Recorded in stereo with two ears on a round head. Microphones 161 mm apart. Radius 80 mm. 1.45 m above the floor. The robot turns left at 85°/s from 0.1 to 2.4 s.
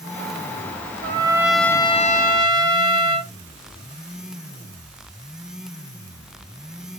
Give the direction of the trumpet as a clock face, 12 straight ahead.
5 o'clock.